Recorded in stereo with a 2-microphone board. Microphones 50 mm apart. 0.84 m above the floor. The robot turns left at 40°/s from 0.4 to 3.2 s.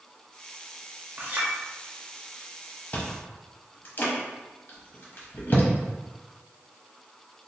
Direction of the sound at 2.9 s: 35° left (ahead or behind).